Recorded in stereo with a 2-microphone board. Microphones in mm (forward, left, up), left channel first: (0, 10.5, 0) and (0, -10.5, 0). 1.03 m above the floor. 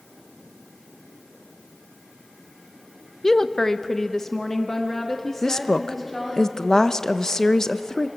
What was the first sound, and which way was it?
A woman speaking, 25° left (ahead or behind).